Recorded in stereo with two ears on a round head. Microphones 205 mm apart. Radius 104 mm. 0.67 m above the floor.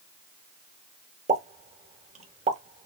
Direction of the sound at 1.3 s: 30° right (ahead or behind).